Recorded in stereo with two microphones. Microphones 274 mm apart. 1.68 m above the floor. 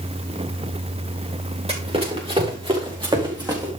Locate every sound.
1.7 s running footsteps: 20° right (ahead or behind), 6 m; by 3.7 s 15° right (ahead or behind), 5 m